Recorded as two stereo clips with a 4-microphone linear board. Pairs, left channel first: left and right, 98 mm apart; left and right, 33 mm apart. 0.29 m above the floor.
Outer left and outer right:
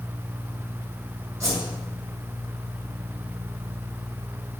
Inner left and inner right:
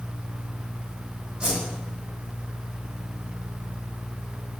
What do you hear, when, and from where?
1.4 s a whoosh: 35° right (ahead or behind), 3 m